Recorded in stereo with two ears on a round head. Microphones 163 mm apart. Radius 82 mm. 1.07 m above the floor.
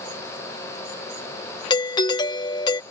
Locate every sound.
1.7 s a doorbell: 25° left (ahead or behind)